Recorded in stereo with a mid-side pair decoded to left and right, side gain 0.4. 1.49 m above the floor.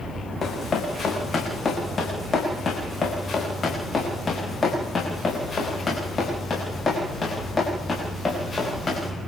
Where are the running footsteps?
45° left, 8 m; by 9.1 s 30° left, 12 m.